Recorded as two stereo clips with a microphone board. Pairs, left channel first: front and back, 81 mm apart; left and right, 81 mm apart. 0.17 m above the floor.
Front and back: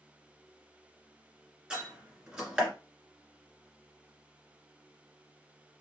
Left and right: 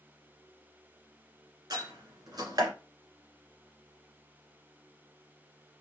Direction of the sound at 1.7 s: 105° right.